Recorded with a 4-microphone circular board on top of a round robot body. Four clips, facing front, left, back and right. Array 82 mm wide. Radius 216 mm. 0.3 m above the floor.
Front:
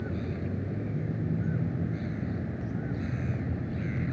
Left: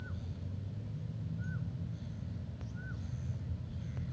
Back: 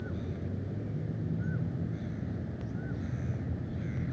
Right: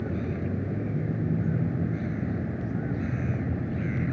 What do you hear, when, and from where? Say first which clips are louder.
0.0 s a vehicle: right 16 dB, front 4 dB; 75° right